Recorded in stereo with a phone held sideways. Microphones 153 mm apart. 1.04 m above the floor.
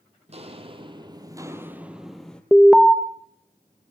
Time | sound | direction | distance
0.3 | footsteps | 45° right (ahead or behind) | 1.6 m
2.5 | an alarm | centre (ahead or behind) | 0.8 m